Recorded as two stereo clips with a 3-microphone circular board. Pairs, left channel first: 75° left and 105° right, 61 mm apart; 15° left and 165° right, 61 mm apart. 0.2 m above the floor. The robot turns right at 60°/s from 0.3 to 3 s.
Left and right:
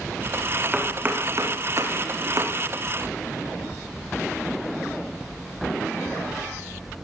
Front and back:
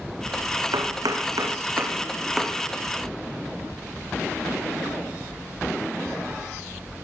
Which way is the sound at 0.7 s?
Straight behind.